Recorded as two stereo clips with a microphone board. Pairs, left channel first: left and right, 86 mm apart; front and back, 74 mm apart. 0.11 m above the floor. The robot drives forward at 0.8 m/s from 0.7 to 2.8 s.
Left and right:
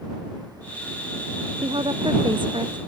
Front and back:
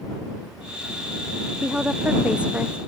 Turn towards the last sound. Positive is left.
turn(degrees=-110)